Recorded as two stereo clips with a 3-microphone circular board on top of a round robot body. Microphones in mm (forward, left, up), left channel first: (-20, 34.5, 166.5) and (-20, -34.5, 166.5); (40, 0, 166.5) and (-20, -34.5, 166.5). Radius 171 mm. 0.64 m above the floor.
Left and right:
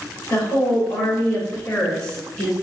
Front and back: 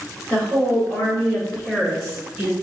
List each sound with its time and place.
0.3 s a woman speaking: 105° left, 2.0 m; by 2.5 s 165° left, 1.2 m